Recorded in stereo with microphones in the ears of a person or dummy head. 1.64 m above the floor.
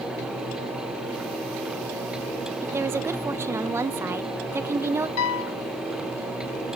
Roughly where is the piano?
Left.